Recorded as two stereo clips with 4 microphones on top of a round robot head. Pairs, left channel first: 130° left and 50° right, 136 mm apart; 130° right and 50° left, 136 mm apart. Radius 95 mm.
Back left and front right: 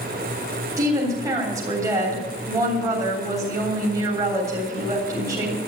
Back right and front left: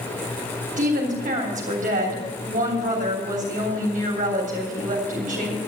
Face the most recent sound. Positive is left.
turn(degrees=20)